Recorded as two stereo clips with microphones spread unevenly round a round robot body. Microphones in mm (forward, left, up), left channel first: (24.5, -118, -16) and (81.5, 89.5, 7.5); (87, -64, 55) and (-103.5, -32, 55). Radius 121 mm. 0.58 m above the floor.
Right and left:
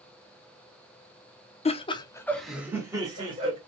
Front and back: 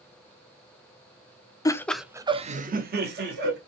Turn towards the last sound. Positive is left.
turn(degrees=145)